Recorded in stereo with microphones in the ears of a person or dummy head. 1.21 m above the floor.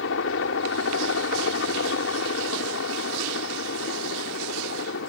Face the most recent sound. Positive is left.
turn(degrees=70)  # may be behind; listen again after turning